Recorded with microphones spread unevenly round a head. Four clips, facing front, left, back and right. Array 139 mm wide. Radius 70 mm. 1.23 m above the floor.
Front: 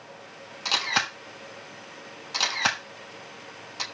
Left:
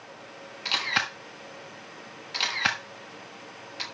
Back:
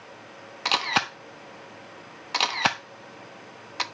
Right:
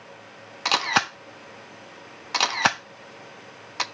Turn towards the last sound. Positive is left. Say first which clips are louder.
# right 7 dB, back 3 dB
turn(degrees=-120)